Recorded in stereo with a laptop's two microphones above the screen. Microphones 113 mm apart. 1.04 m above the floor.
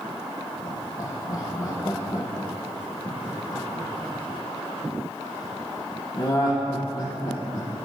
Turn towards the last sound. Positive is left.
turn(degrees=45)  # may be behind; listen again after turning